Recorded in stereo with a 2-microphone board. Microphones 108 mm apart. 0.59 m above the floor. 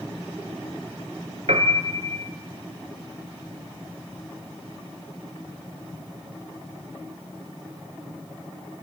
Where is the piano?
80° right, 2.0 m.